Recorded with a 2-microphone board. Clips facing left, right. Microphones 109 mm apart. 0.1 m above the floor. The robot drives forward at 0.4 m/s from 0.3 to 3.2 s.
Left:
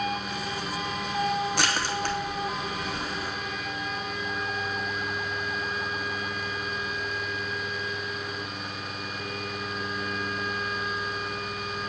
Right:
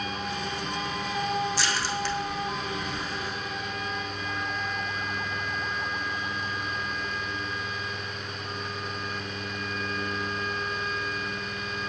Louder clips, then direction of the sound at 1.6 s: Left 1 dB; 60° left (ahead or behind).